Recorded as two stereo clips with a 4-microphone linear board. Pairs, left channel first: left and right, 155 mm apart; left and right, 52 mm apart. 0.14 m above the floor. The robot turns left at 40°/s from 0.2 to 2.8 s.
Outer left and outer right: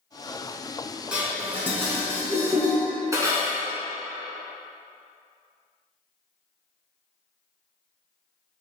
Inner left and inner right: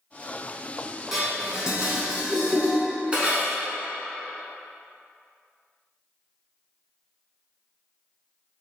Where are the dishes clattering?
5° right (ahead or behind), 1.0 m; by 3.6 s 20° right (ahead or behind), 1.0 m.